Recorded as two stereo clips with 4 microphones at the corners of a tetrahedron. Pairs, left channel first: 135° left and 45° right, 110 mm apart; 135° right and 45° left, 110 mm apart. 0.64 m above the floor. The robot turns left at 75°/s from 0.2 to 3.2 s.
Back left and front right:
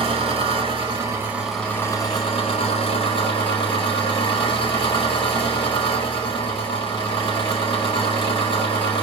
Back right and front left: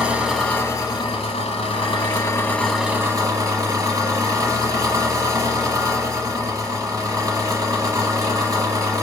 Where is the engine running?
35° right, 1.1 m; by 9.0 s 100° left, 1.1 m.